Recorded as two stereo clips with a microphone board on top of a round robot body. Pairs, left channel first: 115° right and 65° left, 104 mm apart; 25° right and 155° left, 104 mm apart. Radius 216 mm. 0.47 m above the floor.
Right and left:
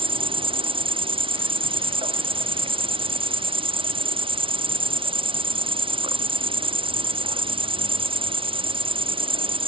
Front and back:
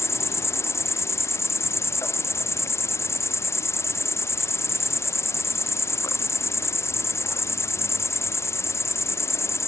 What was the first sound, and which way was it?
An insect, 40° left.